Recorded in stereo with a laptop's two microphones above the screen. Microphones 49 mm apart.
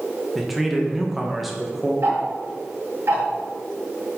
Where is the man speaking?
5° right (ahead or behind), 0.9 m.